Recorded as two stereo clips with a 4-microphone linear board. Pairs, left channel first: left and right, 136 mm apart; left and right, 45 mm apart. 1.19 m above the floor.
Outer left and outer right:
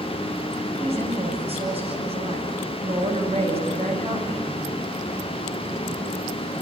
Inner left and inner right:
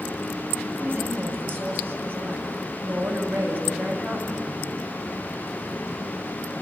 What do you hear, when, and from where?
0.8 s a woman speaking: 45° right (ahead or behind), 8.5 m